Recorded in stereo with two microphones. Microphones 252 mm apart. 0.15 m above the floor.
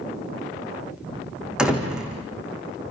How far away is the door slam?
About 5 m.